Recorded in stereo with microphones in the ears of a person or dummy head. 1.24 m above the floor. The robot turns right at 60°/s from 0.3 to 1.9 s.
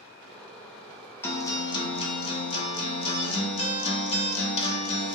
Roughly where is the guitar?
Ahead.